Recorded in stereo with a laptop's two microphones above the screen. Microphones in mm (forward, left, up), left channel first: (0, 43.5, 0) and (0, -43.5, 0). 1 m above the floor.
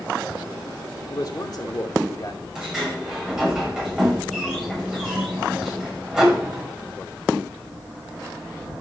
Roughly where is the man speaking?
Left.